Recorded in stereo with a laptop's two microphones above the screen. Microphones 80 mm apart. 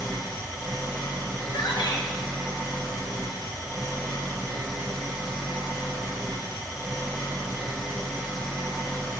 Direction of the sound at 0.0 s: 5° right (ahead or behind).